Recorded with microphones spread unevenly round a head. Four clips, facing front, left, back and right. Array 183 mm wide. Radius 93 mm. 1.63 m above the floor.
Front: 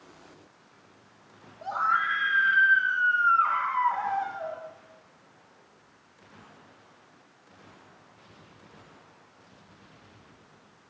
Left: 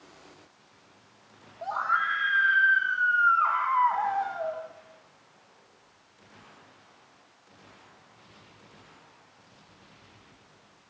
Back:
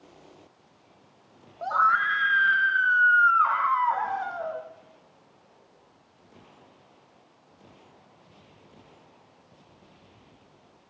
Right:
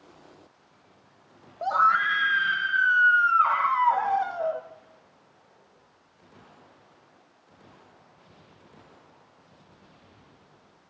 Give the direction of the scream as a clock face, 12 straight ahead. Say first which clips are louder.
Right 6 dB, back 4 dB; 3 o'clock.